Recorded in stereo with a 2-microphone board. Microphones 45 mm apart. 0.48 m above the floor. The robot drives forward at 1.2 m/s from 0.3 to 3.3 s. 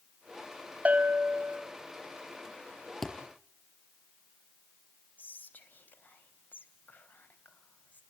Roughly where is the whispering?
Left.